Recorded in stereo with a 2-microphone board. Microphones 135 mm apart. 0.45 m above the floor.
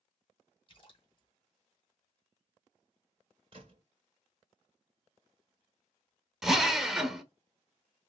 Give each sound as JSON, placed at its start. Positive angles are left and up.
{"t": 0.7, "sound": "a splash", "side_deg": 40, "distance_m": 2.0}
{"t": 3.5, "sound": "a gunshot", "side_deg": -40, "distance_m": 2.0}
{"t": 6.4, "sound": "a drill", "side_deg": -5, "distance_m": 0.8}